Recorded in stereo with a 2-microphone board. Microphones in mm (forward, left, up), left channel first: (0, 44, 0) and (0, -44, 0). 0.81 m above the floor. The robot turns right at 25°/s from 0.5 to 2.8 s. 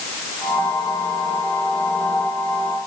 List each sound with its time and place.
Only background noise.